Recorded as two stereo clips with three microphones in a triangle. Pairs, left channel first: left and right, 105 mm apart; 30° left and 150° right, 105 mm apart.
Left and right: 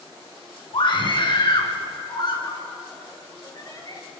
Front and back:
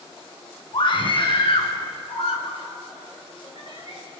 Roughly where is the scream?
Ahead left.